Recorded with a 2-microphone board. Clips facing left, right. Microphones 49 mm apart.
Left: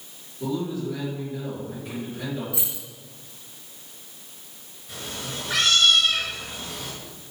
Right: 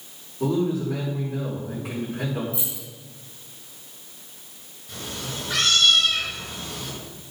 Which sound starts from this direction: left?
Keys jangling, at 2.5 s.